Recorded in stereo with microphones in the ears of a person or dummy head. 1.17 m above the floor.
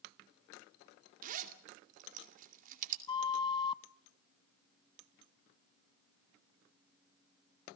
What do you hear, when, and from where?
1.2 s a zipper: 50° right (ahead or behind), 2.5 m
3.1 s a flute: 25° left (ahead or behind), 0.6 m